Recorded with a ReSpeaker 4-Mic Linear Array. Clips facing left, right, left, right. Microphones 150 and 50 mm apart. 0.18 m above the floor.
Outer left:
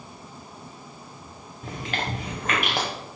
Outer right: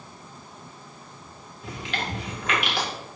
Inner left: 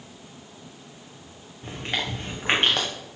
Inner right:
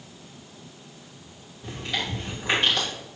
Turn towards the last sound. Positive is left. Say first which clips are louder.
# outer left 1 dB, inner left 1 dB
turn(degrees=45)  # may be behind; listen again after turning